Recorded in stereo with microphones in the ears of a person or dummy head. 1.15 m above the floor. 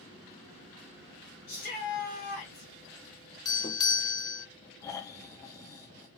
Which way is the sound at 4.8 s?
15° left (ahead or behind).